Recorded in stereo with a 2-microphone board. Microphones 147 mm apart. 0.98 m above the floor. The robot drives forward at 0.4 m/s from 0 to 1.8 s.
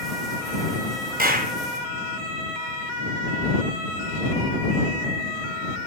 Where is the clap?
85° right, 0.9 m.